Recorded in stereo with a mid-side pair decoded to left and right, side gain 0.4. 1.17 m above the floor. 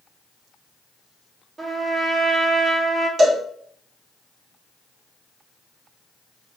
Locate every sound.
1.6 s a trumpet: 35° right, 2 m
3.2 s a cowbell: 55° right, 2 m